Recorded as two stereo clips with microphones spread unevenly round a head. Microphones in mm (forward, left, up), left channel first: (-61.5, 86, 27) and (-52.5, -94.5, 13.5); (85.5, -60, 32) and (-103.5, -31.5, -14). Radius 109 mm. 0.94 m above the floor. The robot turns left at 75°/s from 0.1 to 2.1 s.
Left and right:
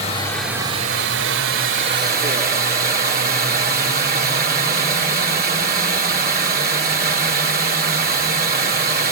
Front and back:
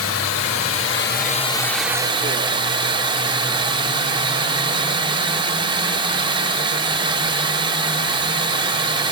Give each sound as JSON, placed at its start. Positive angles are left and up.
{"t": 0.0, "sound": "running water", "azimuth_deg": 25, "distance_m": 2.0}